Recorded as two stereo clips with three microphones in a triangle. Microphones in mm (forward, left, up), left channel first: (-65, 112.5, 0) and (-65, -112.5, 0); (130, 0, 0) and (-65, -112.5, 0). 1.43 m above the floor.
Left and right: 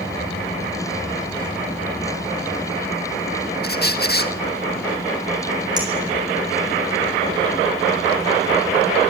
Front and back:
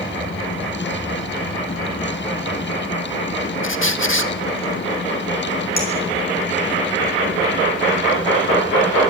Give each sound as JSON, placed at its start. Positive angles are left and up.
{"t": 3.6, "sound": "a squeak", "azimuth_deg": 50, "distance_m": 1.5}
{"t": 5.8, "sound": "a clink", "azimuth_deg": -15, "distance_m": 7.5}